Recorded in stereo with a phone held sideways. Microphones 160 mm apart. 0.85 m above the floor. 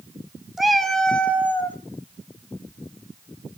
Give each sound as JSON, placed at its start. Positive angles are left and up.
{"t": 0.6, "sound": "a cat meowing", "side_deg": 0, "distance_m": 1.1}